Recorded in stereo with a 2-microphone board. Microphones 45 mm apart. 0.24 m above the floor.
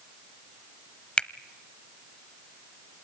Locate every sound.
1.2 s a finger snap: 25° left (ahead or behind), 0.7 m